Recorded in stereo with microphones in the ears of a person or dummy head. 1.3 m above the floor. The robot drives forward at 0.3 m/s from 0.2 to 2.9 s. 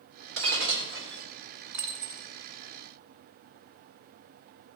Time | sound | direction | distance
0.4 | breaking glass | 70° right (ahead or behind) | 3 m
1.7 | a dropped coin | 65° right (ahead or behind) | 1.9 m